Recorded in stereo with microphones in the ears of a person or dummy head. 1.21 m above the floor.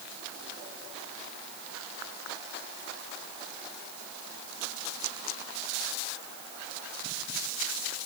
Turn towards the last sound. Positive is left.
No sound to turn to.